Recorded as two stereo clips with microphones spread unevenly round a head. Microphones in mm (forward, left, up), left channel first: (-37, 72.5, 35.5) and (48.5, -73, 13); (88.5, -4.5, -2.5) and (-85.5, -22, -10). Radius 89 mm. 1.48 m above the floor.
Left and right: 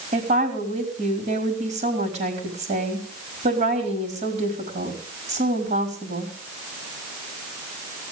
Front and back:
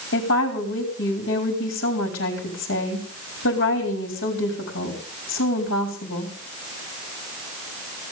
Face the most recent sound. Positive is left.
turn(degrees=-10)